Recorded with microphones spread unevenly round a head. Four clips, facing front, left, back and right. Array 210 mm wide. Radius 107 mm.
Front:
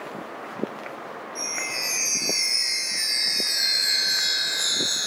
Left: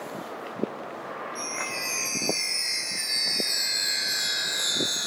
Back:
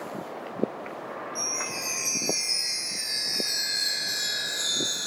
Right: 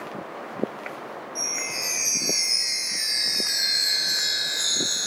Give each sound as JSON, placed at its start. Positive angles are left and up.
{"t": 1.4, "sound": "a chime", "azimuth_deg": -175, "distance_m": 2.5}